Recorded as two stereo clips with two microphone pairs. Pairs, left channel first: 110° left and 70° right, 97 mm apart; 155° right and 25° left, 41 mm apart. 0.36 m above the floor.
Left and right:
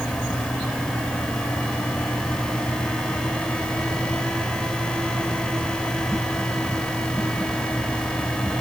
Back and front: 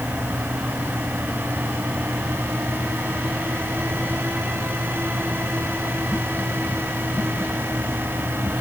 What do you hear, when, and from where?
Only background noise.